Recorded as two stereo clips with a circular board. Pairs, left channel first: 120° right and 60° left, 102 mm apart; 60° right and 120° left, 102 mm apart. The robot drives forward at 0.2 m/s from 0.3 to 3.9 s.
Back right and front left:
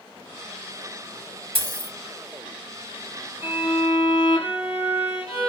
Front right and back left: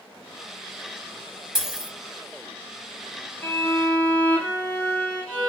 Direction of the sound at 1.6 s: 35° left.